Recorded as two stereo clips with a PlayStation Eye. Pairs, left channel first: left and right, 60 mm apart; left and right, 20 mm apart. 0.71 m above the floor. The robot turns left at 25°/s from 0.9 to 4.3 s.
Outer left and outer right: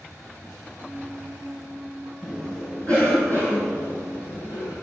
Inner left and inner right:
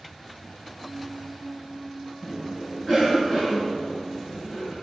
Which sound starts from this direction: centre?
A cough, at 2.2 s.